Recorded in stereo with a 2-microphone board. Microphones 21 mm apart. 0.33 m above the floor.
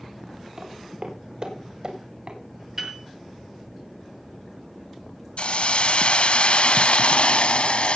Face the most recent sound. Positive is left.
turn(degrees=70)  # may be behind; listen again after turning